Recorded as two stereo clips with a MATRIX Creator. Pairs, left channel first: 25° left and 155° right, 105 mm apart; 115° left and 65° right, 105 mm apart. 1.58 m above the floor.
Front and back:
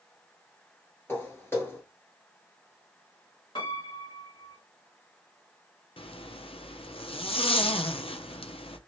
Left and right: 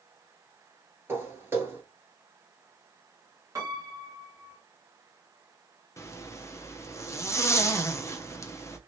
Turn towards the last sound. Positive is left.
turn(degrees=50)